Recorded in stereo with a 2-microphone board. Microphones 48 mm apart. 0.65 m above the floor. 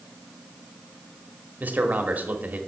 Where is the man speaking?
30° right (ahead or behind), 1.1 m.